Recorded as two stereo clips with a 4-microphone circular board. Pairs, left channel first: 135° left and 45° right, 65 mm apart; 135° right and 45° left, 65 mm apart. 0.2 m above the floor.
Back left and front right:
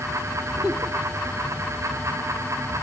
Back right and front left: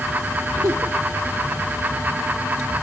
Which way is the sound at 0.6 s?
25° left.